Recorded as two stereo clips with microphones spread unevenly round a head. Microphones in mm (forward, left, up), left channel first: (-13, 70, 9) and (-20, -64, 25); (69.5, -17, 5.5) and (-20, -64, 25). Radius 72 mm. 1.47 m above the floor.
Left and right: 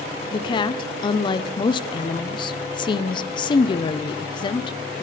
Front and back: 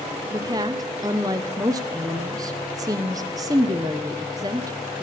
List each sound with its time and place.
0.3 s a woman speaking: 140° left, 0.9 m